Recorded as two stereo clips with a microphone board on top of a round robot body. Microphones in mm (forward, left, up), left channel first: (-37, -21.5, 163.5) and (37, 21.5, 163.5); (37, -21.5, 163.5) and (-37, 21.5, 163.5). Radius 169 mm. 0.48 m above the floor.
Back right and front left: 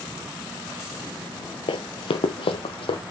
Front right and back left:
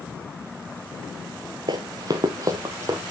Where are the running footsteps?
170° right, 0.8 m; by 3.0 s 155° right, 1.7 m.